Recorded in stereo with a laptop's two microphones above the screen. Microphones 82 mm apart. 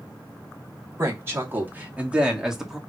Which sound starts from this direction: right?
A woman speaking, at 1.0 s.